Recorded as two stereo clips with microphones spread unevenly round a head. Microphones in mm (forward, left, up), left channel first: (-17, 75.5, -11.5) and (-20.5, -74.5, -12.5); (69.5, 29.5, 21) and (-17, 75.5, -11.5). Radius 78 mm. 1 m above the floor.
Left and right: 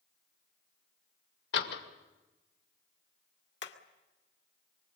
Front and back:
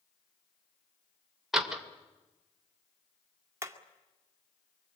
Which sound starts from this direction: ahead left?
A door slam, at 1.5 s.